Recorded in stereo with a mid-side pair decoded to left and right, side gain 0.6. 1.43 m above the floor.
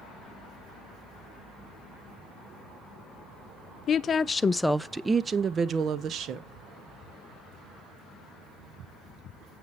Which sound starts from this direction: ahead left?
A woman speaking, at 3.9 s.